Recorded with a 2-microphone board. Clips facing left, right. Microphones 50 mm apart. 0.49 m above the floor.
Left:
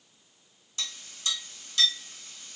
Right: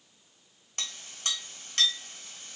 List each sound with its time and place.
0.8 s a clink: 55° right (ahead or behind), 1.5 m